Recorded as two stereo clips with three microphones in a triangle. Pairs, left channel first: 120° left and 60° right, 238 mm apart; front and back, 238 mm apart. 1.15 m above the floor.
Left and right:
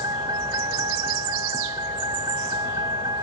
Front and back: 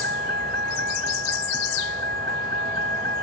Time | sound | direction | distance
0.0 | a vehicle | 135° right | ?